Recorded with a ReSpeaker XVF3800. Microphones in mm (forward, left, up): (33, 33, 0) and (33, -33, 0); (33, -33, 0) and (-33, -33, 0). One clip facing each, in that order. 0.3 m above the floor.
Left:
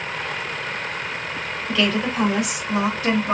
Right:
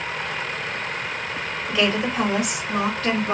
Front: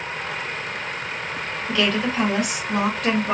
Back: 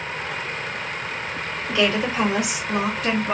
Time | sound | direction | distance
1.7 | a woman speaking | 145° right | 1.5 m